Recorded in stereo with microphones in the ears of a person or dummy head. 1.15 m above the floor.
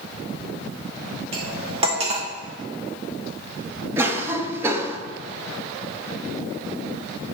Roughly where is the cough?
Centre.